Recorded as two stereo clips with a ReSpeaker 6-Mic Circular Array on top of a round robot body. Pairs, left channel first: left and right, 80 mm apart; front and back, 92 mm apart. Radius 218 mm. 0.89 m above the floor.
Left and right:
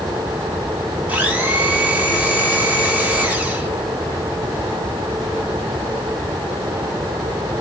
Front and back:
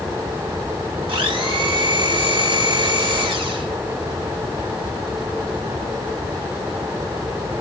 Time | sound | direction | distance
1.1 | a blender | 160° right | 3.5 m